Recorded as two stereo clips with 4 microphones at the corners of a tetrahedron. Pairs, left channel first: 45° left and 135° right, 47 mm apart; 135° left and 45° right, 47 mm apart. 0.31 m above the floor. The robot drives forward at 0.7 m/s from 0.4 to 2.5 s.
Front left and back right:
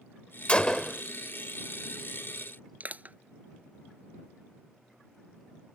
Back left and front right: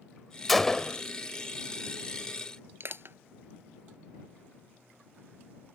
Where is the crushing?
80° right.